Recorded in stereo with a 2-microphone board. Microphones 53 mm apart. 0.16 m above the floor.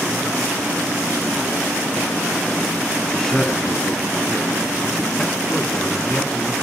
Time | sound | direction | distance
3.1 | a man speaking | 10° left (ahead or behind) | 1.4 m